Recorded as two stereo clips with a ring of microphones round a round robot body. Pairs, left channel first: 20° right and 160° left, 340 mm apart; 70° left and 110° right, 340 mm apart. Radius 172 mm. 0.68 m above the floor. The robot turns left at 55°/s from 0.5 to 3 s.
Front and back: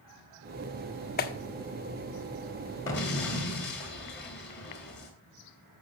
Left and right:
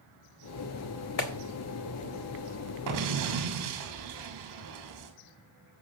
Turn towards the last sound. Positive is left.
turn(degrees=-85)